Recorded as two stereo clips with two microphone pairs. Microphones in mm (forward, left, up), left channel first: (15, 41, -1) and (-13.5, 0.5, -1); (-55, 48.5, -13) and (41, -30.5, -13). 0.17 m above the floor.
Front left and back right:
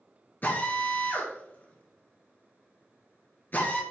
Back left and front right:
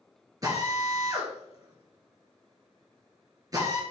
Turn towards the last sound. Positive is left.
turn(degrees=15)